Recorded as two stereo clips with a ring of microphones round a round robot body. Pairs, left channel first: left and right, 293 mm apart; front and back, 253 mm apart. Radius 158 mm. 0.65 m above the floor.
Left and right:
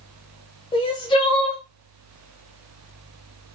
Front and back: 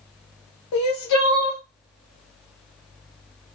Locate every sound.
0.7 s crying: 15° left, 1.3 m